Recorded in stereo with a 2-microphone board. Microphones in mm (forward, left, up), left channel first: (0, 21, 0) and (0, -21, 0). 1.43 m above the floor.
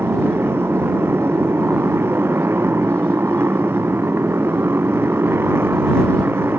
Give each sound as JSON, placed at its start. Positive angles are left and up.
{"t": 0.0, "sound": "a motorcycle", "side_deg": -75}